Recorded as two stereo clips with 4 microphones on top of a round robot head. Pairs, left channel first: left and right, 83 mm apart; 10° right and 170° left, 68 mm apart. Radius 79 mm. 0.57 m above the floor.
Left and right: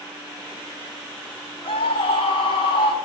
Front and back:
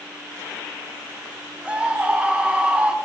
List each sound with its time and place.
1.6 s a scream: 100° left, 4 m